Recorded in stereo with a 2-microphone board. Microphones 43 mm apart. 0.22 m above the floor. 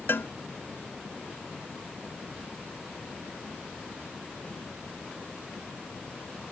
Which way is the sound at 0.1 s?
65° left (ahead or behind).